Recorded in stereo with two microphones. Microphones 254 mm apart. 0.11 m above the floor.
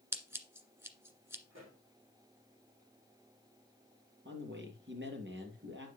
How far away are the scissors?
About 1.5 m.